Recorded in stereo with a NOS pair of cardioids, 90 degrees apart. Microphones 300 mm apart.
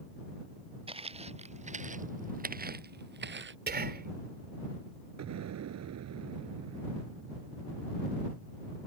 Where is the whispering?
35° right.